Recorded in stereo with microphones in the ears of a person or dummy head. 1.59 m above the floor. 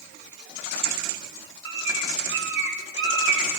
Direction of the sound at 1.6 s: 65° right (ahead or behind).